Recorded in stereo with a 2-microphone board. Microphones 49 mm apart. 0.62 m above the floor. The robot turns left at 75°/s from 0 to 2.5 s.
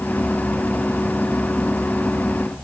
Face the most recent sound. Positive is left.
No sound to turn to.